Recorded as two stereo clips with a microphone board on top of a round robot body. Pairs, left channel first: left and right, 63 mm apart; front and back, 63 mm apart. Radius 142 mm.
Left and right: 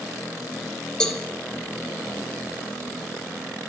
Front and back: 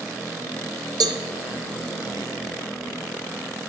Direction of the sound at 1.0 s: 170° left.